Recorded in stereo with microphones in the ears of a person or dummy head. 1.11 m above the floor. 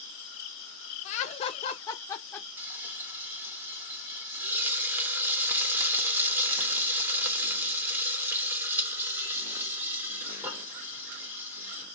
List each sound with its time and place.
1.1 s laughter: 30° left (ahead or behind), 0.9 m; by 2.5 s 5° left (ahead or behind), 0.7 m
2.6 s frying: 15° right (ahead or behind), 0.5 m